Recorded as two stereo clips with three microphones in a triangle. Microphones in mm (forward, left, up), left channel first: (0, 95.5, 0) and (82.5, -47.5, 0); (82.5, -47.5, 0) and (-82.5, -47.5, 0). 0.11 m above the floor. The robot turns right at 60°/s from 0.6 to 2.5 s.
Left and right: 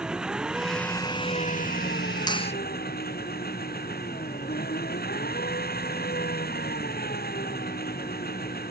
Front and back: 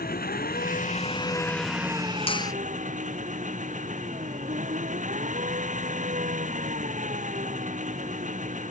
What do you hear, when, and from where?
0.0 s an engine running: 25° left; by 8.7 s 140° left
2.3 s a finger snap: 55° left; by 2.5 s 70° left